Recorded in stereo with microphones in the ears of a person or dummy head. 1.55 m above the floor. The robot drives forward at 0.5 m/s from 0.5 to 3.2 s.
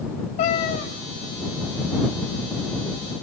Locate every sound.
0.4 s a cat meowing: 35° left (ahead or behind), 2 m; by 0.9 s 40° left (ahead or behind), 2 m